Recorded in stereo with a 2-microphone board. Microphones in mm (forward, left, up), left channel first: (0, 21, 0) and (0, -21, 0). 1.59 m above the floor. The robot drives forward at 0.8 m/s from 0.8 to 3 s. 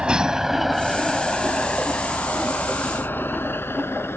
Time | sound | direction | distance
0.0 | a vehicle | 20° right (ahead or behind) | ?